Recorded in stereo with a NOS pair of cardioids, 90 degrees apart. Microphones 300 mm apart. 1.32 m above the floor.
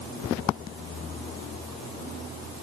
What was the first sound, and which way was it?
Only background noise.